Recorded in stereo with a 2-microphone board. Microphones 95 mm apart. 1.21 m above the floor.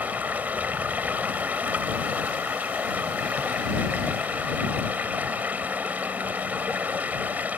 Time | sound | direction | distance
0.0 | running water | 20° right (ahead or behind) | ?